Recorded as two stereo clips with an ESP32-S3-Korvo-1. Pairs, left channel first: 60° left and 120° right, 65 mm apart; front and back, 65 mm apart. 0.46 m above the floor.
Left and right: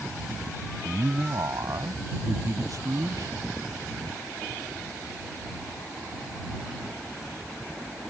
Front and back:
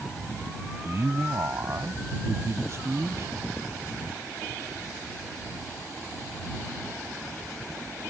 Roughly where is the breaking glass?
No breaking glass in this recording.